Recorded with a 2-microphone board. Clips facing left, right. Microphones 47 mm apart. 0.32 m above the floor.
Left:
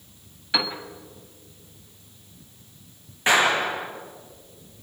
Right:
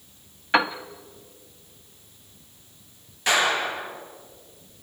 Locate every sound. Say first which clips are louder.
0.5 s a piano: right 6 dB; 40° right (ahead or behind), 1.2 m
3.3 s a clap: left 2 dB; 25° left (ahead or behind), 4.5 m